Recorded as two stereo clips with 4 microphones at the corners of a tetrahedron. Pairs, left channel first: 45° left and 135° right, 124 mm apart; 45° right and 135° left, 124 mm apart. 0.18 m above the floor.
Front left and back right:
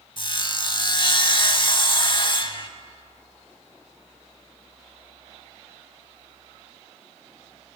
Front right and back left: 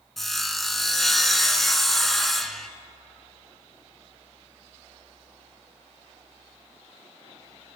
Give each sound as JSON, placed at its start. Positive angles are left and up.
{"t": 0.2, "sound": "sawing", "azimuth_deg": 45, "distance_m": 0.6}